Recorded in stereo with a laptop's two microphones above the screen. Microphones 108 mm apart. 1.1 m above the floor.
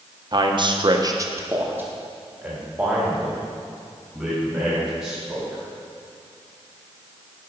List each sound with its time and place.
0.3 s a man speaking: 40° right (ahead or behind), 0.9 m; by 5.6 s 5° right (ahead or behind), 6 m